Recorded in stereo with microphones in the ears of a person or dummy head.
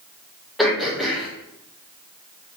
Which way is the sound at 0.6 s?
Centre (ahead or behind).